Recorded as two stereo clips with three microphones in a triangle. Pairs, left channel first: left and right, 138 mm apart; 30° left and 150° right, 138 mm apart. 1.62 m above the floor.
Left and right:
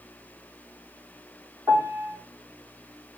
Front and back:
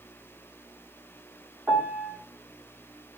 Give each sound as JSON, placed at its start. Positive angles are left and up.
{"t": 1.7, "sound": "a piano", "azimuth_deg": -110, "distance_m": 1.2}